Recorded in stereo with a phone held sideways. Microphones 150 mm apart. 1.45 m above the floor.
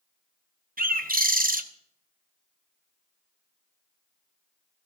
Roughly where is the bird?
Right.